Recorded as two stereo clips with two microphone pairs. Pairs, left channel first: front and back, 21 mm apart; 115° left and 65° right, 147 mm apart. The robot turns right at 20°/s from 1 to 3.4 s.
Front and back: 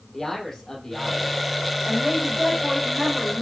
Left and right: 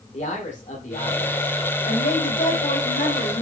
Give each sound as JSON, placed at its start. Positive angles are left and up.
{"t": 0.1, "sound": "a man speaking", "azimuth_deg": 80, "distance_m": 5.5}
{"t": 1.9, "sound": "a woman speaking", "azimuth_deg": 90, "distance_m": 4.5}